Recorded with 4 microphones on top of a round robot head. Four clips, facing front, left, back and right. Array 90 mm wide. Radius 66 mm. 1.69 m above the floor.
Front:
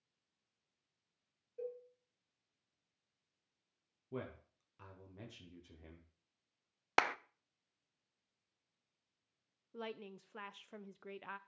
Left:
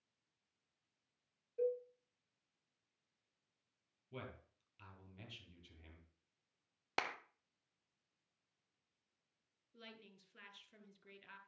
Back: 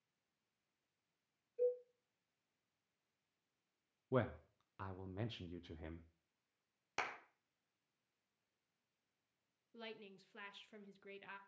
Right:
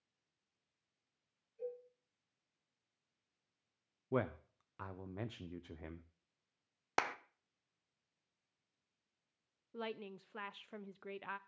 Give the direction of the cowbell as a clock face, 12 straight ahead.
10 o'clock.